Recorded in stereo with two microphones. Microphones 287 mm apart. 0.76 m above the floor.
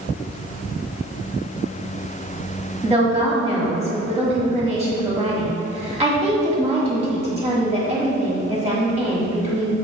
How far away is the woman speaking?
About 1.3 m.